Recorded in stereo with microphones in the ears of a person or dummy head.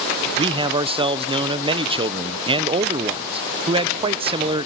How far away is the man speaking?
About 0.7 m.